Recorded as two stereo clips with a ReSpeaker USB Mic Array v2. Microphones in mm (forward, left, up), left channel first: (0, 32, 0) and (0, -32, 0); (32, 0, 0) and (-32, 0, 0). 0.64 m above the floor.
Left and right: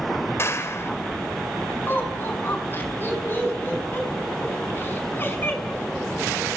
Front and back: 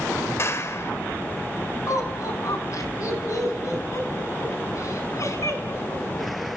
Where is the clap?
45° left, 2.5 m.